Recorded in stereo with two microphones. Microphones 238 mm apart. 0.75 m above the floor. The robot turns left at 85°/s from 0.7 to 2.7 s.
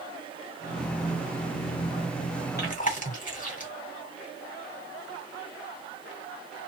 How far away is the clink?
I don't hear a clink.